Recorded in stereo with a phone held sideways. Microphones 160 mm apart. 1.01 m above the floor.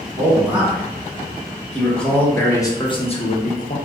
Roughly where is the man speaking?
Centre.